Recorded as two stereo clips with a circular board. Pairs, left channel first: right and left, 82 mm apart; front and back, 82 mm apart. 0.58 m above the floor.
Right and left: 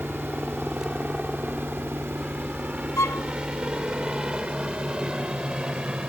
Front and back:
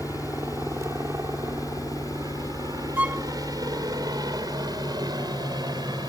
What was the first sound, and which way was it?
A helicopter, 165° left.